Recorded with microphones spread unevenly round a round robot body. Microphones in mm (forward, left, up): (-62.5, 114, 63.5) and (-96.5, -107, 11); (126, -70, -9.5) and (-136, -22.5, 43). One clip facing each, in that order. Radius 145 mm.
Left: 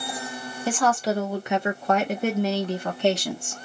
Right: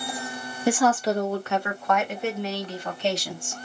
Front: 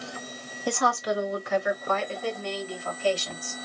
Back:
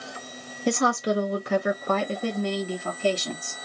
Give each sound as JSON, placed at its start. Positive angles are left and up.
{"t": 0.7, "sound": "a woman speaking", "azimuth_deg": -125, "distance_m": 0.9}